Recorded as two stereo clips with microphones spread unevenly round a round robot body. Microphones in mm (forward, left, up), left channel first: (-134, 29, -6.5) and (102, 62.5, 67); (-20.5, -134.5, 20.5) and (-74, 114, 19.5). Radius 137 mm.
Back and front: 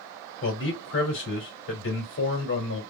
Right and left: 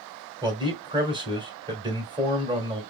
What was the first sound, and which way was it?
A man speaking, 175° left.